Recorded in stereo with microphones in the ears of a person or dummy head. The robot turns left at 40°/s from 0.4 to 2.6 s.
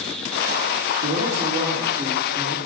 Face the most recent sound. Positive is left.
turn(degrees=-165)